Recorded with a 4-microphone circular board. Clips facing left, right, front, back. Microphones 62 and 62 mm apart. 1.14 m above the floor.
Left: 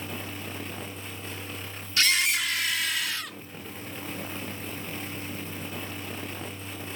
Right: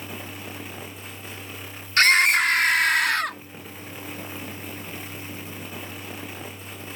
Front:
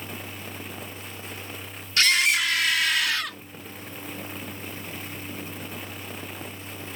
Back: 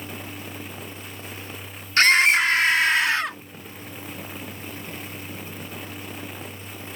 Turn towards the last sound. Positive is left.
turn(degrees=-120)